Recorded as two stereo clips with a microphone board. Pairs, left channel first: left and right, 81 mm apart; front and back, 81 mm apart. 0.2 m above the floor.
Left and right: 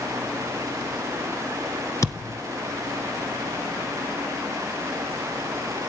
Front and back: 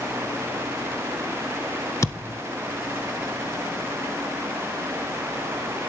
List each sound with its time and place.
2.0 s a thud: 45° left, 1.2 m